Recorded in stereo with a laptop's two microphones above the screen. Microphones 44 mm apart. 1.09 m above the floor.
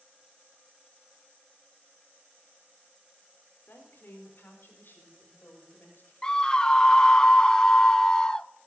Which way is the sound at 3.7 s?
55° left (ahead or behind).